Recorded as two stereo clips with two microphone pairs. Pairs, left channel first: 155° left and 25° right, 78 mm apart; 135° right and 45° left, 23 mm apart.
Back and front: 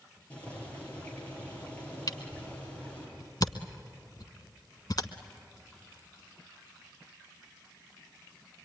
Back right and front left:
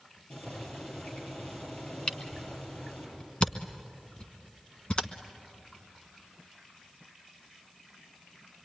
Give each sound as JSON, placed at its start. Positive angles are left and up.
{"t": 0.3, "sound": "boiling", "azimuth_deg": -135, "distance_m": 9.0}
{"t": 2.1, "sound": "a camera shutter", "azimuth_deg": -175, "distance_m": 1.2}